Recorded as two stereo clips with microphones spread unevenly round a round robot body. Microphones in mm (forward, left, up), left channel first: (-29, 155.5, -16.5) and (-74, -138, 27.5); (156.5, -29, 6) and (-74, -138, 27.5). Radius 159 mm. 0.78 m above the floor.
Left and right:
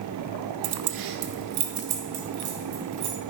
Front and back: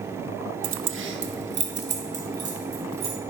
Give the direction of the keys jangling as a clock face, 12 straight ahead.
4 o'clock.